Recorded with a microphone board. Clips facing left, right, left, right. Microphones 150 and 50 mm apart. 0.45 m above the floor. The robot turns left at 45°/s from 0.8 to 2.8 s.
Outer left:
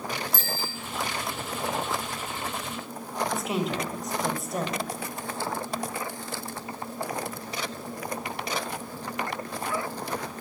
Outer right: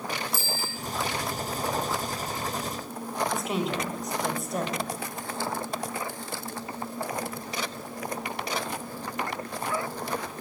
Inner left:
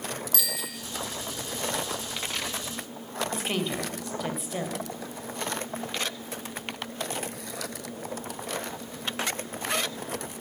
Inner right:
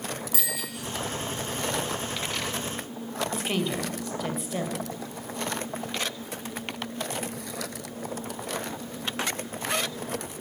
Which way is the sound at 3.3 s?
Centre (ahead or behind).